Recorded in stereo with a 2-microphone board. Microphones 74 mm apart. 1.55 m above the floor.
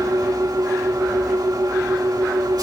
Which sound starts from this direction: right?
An engine running, at 0.0 s.